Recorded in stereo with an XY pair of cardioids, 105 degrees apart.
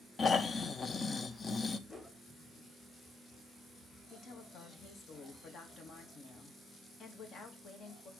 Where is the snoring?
35° left, 0.6 m.